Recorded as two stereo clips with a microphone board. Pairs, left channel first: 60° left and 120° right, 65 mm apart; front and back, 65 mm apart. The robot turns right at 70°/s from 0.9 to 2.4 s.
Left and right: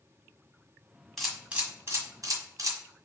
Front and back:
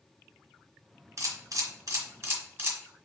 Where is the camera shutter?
145° left, 1.5 m; by 2.8 s 130° right, 1.5 m.